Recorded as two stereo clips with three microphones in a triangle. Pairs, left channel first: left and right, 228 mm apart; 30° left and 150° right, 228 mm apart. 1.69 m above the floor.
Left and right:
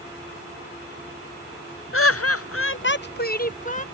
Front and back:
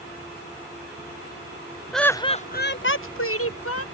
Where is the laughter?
120° left; by 3.9 s 35° left.